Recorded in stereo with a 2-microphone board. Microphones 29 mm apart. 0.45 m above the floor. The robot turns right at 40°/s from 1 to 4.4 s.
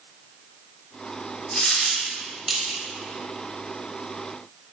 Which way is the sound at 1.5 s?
30° left (ahead or behind).